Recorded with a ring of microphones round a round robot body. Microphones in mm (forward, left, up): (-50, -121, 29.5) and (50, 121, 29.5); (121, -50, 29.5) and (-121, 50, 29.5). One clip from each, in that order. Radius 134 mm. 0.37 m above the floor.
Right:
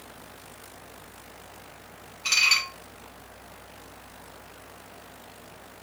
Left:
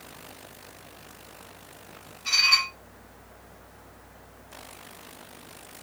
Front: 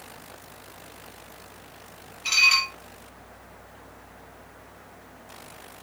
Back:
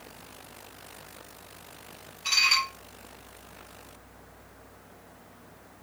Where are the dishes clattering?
105° right, 6.5 m.